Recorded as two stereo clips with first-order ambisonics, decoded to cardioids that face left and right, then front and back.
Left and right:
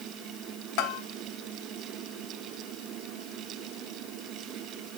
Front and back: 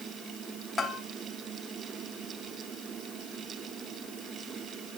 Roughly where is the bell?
Left.